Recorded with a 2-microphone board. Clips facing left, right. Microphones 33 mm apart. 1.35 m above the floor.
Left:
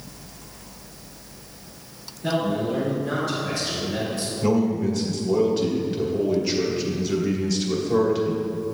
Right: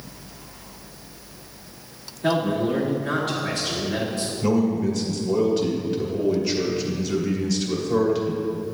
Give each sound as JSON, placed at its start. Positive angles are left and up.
{"t": 2.2, "sound": "a man speaking", "side_deg": -55, "distance_m": 1.9}
{"t": 4.4, "sound": "a man speaking", "side_deg": 5, "distance_m": 1.4}